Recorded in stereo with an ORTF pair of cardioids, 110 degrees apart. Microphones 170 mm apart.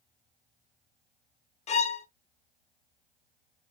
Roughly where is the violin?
Ahead left.